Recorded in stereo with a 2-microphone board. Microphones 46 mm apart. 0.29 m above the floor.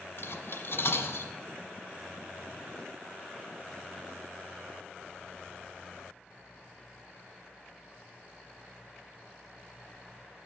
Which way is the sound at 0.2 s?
70° left (ahead or behind).